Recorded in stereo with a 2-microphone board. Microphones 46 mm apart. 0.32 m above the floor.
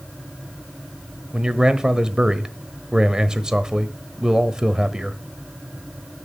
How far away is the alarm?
No alarm in this recording.